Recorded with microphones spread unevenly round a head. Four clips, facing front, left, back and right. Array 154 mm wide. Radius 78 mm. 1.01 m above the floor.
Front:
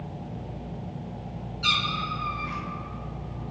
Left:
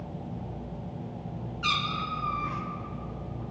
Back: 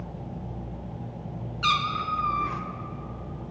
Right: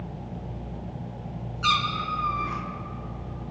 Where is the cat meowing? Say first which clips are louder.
Right 5 dB, back 4 dB; 140° right, 1.4 m.